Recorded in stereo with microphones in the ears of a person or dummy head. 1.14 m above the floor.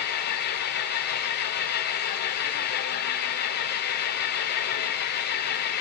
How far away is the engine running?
About 1.6 m.